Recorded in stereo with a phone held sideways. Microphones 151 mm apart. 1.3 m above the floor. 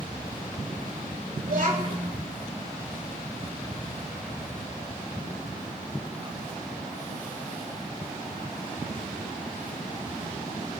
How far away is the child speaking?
About 3.5 m.